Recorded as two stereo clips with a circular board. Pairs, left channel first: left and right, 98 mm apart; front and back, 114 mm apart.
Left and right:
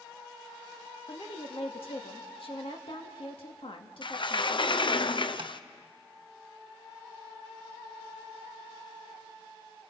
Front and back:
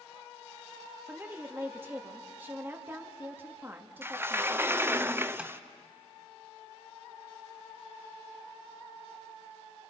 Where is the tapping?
100° right, 1.1 m.